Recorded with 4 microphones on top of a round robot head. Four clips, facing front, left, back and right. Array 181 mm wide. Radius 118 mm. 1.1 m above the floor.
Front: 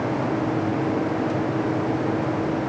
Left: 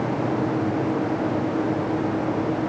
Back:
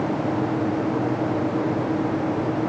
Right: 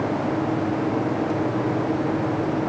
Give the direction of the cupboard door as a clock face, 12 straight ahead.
No cupboard door in this recording.